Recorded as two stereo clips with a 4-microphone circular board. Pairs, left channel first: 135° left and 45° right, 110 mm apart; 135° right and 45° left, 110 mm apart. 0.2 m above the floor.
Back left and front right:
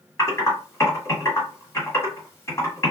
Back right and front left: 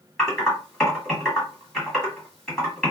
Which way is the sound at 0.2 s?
145° left.